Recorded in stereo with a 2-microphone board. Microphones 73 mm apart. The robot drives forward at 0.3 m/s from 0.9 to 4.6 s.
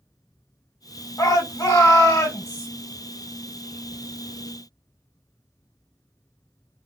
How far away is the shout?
About 1.3 m.